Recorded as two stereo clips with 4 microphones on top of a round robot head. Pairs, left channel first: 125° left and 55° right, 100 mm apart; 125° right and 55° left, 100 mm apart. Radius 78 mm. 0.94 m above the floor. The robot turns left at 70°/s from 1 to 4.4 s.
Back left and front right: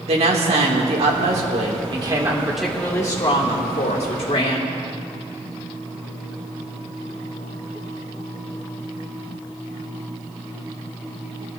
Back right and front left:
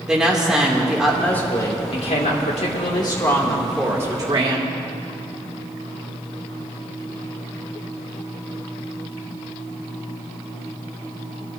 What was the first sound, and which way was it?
A woman speaking, 30° right.